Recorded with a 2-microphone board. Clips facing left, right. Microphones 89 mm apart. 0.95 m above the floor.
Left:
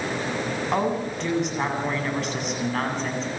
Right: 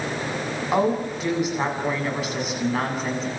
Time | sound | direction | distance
0.7 | a woman speaking | 5° right (ahead or behind) | 8 m